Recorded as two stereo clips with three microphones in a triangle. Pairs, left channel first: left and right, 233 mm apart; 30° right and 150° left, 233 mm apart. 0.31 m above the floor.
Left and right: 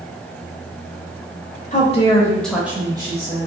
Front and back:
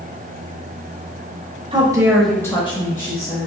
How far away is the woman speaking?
About 1.2 m.